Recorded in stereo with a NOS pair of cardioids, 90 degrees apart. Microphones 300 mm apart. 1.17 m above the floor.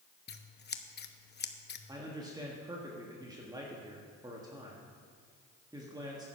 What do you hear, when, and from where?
0.3 s scissors: 35° left, 0.9 m
1.9 s a man speaking: 15° right, 1.6 m